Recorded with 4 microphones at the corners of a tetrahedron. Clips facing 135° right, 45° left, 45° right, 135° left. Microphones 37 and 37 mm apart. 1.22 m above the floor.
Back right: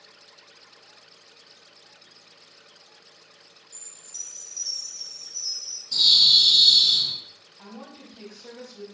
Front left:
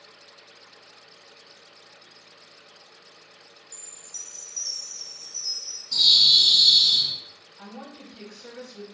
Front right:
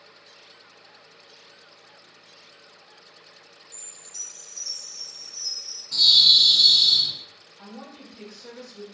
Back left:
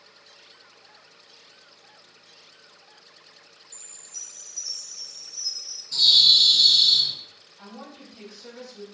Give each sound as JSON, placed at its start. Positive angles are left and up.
{"t": 3.7, "sound": "a chime", "azimuth_deg": -70, "distance_m": 1.4}
{"t": 5.9, "sound": "a bird", "azimuth_deg": -35, "distance_m": 1.4}
{"t": 7.6, "sound": "a woman speaking", "azimuth_deg": 60, "distance_m": 1.2}